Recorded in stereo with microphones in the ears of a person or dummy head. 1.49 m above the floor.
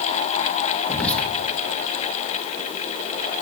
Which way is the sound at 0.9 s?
5° left (ahead or behind).